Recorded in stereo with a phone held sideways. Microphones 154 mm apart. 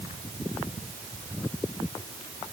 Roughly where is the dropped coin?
No dropped coin in this recording.